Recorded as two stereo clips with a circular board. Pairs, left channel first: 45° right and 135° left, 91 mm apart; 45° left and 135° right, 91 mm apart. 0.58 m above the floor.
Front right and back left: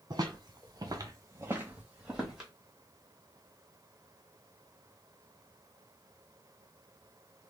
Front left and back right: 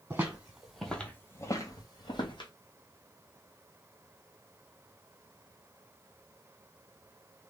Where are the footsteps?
165° left, 0.9 m; by 2.5 s 45° left, 1.1 m.